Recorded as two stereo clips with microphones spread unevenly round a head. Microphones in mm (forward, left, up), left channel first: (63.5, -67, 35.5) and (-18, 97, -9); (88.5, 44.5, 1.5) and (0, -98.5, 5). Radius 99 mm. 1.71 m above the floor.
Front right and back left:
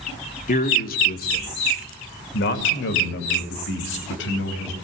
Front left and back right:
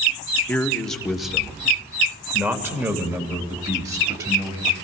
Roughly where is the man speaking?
Ahead right.